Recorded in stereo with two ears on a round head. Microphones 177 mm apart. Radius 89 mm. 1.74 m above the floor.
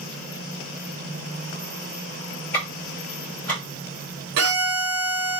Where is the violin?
60° right (ahead or behind), 1.0 m.